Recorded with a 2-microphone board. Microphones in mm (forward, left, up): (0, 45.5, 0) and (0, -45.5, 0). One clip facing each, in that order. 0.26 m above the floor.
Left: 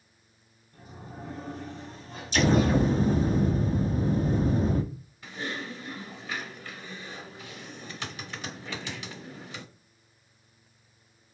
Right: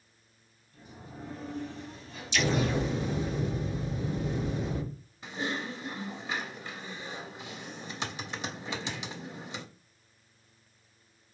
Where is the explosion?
40° left (ahead or behind), 0.6 m.